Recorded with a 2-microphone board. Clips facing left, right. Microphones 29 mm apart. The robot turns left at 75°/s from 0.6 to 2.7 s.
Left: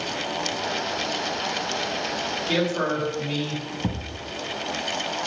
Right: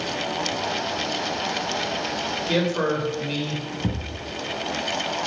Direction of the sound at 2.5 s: 5° left (ahead or behind).